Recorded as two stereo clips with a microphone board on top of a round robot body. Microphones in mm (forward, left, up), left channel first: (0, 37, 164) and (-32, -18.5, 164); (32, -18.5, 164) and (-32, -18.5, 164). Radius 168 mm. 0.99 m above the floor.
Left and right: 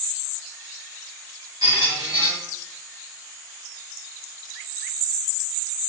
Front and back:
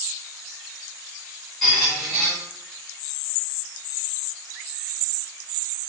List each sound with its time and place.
1.6 s a squeak: 90° right, 1.9 m